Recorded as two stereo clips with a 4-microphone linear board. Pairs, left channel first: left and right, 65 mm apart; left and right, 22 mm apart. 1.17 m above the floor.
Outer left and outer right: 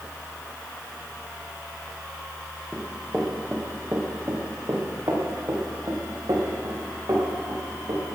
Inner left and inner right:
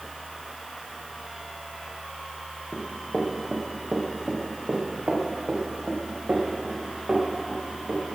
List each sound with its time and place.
2.7 s running footsteps: 10° right (ahead or behind), 3 m; by 8.2 s 75° right (ahead or behind), 6 m